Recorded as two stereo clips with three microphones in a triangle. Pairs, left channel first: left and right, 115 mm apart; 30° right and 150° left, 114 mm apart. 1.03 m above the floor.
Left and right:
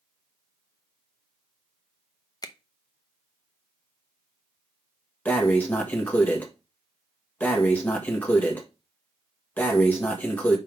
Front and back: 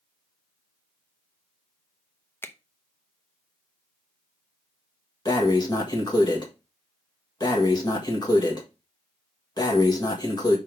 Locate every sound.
2.4 s a finger snap: 40° left, 0.7 m
5.2 s breathing: 15° left, 1.5 m